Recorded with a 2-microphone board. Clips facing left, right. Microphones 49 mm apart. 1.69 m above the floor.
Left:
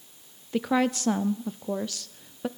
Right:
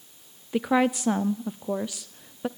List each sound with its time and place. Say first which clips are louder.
0.5 s a woman speaking: right 2 dB; 15° right (ahead or behind), 0.6 m